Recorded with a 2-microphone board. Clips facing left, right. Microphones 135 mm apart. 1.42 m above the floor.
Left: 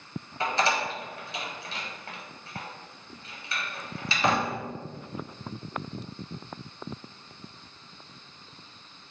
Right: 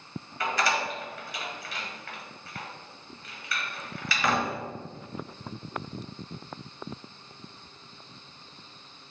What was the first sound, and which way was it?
A door slam, 25° left (ahead or behind).